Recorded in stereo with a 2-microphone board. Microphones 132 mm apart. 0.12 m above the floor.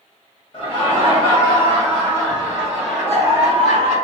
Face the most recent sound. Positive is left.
turn(degrees=-10)  # may be behind; listen again after turning